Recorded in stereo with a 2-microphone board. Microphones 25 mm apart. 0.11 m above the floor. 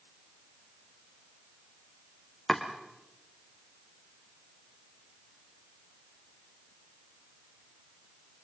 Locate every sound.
2.5 s chopping: 10° left (ahead or behind), 3.5 m